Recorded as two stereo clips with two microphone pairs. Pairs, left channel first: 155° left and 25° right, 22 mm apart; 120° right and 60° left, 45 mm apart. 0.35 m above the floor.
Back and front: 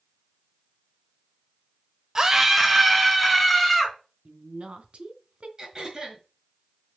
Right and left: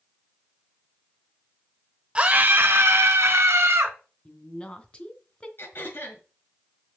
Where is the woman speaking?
50° right, 2.5 m.